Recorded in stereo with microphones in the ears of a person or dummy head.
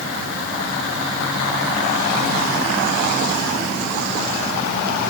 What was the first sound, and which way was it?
Only background noise.